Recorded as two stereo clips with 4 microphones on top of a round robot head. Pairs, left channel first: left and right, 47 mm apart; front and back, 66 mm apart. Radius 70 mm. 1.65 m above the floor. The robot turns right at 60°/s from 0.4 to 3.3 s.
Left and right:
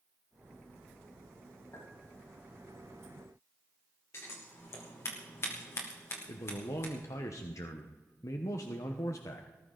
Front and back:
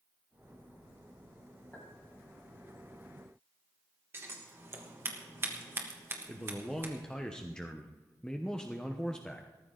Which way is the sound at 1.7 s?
70° left.